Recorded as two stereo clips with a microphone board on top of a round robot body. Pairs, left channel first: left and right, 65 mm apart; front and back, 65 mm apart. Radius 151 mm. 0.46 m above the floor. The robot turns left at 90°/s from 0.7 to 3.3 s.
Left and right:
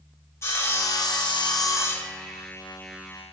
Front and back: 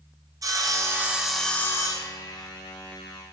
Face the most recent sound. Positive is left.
turn(degrees=-90)